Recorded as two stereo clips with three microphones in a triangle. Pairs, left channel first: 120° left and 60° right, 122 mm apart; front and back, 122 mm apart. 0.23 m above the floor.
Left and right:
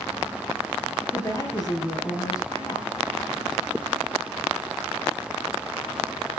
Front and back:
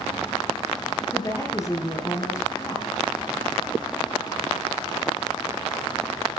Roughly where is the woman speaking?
Ahead left.